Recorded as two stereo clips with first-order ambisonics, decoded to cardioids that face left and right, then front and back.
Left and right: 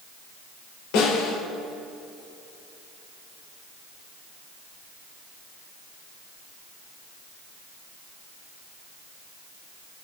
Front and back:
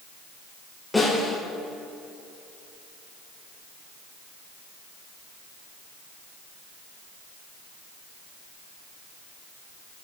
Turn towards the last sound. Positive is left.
turn(degrees=85)